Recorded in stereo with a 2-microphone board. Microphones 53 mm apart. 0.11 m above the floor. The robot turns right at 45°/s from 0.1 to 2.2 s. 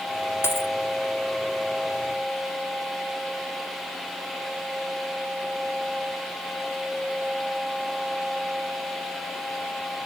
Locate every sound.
0.4 s a dropped coin: 50° left (ahead or behind); by 0.7 s 65° left (ahead or behind)